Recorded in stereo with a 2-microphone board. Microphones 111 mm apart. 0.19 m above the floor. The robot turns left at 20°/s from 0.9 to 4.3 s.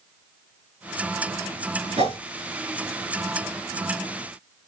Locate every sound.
2.0 s a whoosh: 65° right (ahead or behind), 3 m